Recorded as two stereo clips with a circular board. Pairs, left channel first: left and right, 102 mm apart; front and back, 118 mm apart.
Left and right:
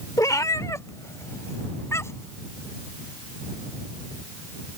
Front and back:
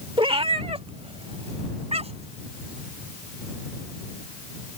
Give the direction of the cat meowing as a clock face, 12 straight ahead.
7 o'clock.